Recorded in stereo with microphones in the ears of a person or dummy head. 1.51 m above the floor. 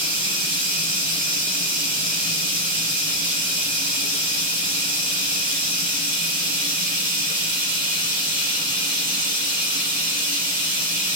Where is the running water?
50° right (ahead or behind), 2.5 m.